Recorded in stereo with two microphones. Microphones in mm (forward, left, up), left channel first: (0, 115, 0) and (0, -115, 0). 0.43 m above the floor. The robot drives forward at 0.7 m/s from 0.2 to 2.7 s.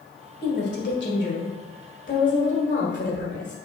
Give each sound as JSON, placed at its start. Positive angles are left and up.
{"t": 0.4, "sound": "a woman speaking", "side_deg": 45, "distance_m": 2.0}